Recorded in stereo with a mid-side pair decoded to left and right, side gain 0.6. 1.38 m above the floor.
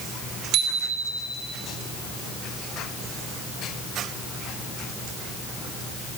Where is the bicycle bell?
70° right, 4.5 m.